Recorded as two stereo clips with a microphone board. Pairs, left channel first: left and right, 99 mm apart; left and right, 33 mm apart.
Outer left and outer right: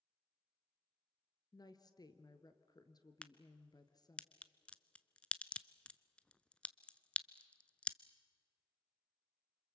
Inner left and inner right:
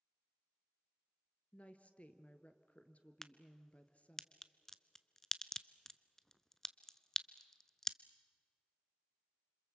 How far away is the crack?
About 0.7 m.